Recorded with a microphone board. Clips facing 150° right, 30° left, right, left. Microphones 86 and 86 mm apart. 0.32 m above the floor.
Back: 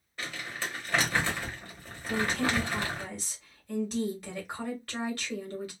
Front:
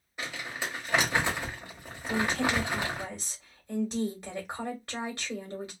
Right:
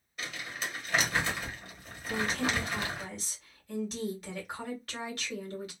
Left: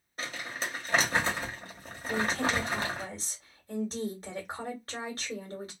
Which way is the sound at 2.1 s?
80° left.